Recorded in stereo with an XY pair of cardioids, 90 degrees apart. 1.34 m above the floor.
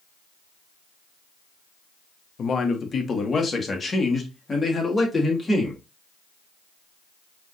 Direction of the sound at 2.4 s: 55° left.